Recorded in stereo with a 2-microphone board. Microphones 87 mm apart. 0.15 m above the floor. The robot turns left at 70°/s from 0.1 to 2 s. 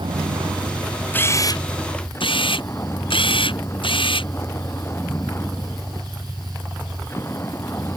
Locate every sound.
0.0 s a vehicle: 80° right; by 8.0 s 150° left
1.1 s a camera shutter: 160° left; by 4.3 s 100° left